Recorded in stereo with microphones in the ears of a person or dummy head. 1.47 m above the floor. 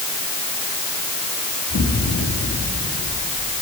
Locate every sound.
1.7 s an explosion: 75° left (ahead or behind), 3 m